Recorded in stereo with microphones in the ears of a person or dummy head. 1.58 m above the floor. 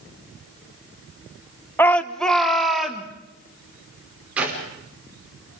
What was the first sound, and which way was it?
A shout, 10° left (ahead or behind).